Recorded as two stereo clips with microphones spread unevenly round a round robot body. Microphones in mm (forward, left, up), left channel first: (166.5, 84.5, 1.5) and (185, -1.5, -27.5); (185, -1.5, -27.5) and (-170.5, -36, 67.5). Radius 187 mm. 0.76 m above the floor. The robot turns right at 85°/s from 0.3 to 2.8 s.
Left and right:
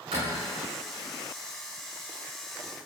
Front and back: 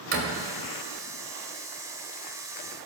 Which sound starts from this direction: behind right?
A door slam, at 0.1 s.